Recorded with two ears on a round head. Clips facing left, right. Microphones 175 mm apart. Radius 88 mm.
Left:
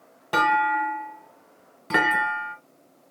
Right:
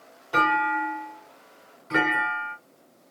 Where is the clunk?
60° left (ahead or behind), 0.7 m.